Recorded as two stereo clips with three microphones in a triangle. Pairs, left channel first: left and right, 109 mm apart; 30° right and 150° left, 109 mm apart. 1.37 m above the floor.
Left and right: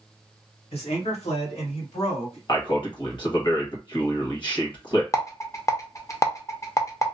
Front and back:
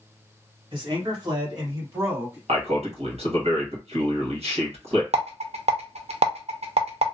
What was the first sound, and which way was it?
A man speaking, 110° left.